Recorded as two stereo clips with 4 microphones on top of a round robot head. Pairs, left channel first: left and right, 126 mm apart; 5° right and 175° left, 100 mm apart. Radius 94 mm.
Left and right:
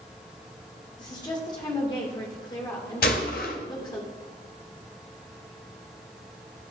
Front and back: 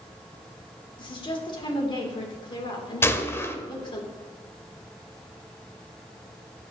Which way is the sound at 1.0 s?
30° left.